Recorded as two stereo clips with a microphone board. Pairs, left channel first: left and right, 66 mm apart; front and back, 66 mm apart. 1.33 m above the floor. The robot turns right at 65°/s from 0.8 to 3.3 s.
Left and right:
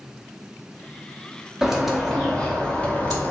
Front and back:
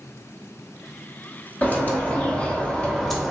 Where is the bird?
20° right, 0.8 m; by 3.3 s 90° left, 0.8 m.